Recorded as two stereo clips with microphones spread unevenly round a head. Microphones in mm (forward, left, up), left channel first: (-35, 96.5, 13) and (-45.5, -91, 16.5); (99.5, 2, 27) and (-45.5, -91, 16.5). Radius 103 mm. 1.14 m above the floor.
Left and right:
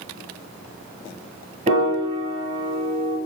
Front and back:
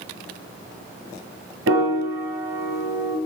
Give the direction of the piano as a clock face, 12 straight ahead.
5 o'clock.